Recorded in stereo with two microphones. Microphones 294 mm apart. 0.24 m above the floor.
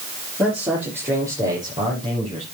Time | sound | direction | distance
0.4 | a man speaking | 5° right (ahead or behind) | 4.5 m